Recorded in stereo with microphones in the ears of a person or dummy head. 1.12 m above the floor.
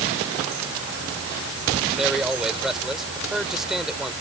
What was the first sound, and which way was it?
A man speaking, centre (ahead or behind).